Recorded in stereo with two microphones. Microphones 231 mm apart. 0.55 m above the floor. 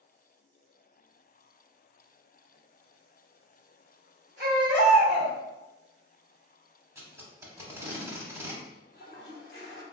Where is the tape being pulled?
10° right (ahead or behind), 0.8 m.